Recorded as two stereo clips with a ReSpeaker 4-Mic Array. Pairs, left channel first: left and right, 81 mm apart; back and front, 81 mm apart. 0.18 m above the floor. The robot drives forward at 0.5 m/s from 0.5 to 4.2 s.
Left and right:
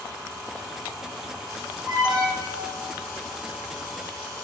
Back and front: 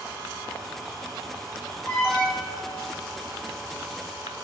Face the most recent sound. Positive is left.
turn(degrees=-120)